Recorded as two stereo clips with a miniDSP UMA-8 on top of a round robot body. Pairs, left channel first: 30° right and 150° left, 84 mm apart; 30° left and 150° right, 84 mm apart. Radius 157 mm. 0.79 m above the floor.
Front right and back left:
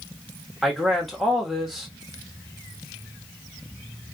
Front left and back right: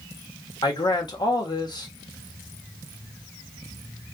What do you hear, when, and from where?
0.6 s a man speaking: 60° left, 1.6 m